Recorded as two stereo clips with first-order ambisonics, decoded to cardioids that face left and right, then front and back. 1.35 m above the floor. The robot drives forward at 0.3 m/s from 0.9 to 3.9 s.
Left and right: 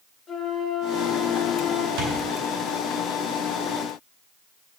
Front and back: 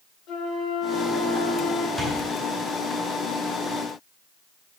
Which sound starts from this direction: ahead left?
A flute, at 0.3 s.